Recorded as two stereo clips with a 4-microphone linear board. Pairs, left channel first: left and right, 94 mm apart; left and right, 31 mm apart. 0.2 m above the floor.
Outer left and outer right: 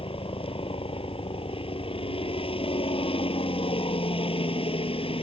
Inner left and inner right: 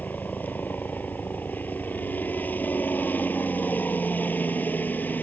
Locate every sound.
0.0 s a helicopter: 70° left (ahead or behind)